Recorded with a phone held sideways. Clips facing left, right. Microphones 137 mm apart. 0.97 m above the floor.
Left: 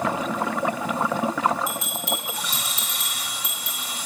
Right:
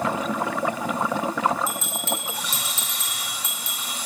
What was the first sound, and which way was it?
A bell, 15° left (ahead or behind).